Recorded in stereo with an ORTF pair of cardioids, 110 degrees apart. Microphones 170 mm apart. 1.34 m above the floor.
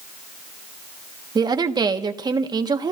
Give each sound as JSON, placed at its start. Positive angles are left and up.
{"t": 1.4, "sound": "a woman speaking", "azimuth_deg": -25, "distance_m": 1.4}